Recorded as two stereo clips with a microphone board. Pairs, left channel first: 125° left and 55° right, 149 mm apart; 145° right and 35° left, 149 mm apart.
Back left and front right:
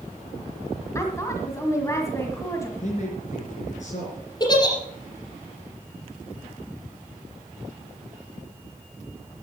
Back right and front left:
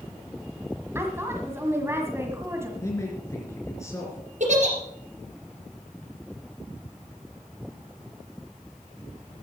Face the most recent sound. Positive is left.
turn(degrees=65)